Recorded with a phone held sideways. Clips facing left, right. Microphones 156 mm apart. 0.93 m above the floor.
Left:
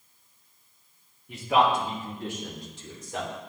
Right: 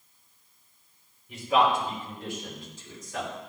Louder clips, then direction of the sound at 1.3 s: Left 1 dB; 70° left (ahead or behind).